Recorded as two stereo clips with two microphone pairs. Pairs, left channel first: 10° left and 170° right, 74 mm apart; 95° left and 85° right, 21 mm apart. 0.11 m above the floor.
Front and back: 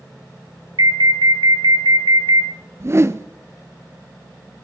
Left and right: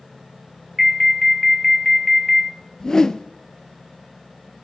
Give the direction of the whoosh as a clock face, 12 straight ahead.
7 o'clock.